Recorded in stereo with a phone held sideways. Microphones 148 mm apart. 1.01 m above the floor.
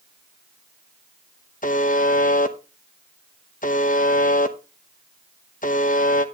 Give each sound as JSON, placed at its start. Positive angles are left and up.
{"t": 1.6, "sound": "a buzzer", "side_deg": 65, "distance_m": 0.9}